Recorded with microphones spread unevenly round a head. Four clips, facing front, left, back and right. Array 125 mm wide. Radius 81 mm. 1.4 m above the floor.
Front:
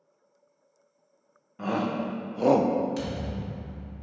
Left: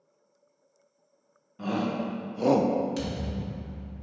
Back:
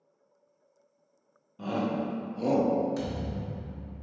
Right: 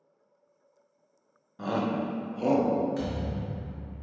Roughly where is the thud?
Behind left.